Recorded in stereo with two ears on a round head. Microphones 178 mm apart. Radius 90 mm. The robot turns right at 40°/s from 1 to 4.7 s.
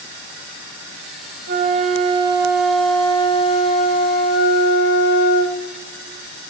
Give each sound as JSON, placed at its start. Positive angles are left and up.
{"t": 1.5, "sound": "a flute", "azimuth_deg": -50, "distance_m": 0.8}